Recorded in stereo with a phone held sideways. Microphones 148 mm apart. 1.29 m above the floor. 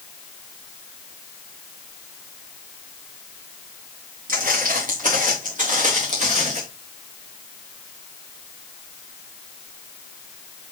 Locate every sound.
4.3 s footsteps: 70° right (ahead or behind), 6 m; by 6.6 s 50° right (ahead or behind), 5 m